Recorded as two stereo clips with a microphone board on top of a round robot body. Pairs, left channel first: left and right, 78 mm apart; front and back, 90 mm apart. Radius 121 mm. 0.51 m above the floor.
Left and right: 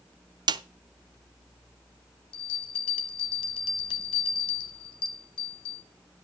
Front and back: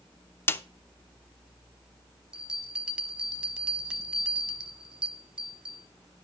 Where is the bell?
100° left, 0.5 m.